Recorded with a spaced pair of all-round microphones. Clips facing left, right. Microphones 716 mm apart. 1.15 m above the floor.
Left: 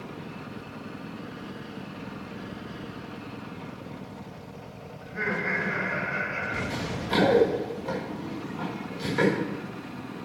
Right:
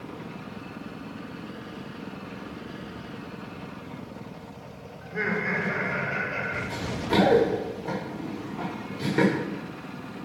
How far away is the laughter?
About 4 m.